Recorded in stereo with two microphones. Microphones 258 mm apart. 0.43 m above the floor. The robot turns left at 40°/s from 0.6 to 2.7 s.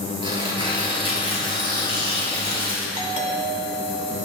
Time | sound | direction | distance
0.2 | tearing paper | 20° right | 3.5 m
3.0 | a doorbell | 30° right (ahead or behind) | 2 m